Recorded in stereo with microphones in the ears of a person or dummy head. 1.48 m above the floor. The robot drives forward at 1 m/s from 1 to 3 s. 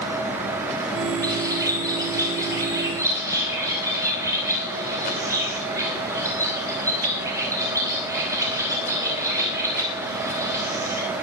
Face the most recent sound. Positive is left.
turn(degrees=-15)  # may be behind; listen again after turning